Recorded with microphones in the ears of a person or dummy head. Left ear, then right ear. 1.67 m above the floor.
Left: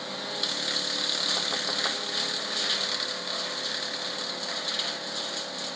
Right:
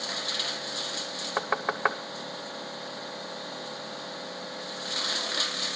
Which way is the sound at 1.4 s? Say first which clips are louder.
Even; 60° right (ahead or behind).